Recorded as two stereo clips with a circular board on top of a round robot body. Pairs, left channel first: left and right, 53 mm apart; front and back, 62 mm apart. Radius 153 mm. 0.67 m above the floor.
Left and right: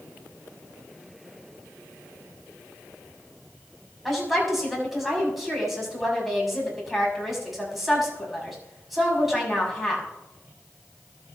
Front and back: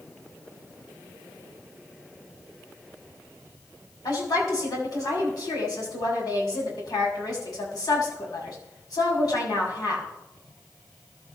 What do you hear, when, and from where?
4.0 s a woman speaking: 5° right, 6.5 m